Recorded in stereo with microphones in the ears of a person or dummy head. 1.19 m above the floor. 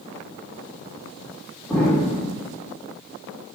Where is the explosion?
Centre (ahead or behind), 1.6 m.